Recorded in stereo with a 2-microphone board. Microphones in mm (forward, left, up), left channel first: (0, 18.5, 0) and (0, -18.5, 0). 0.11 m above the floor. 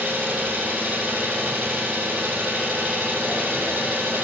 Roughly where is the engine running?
Right.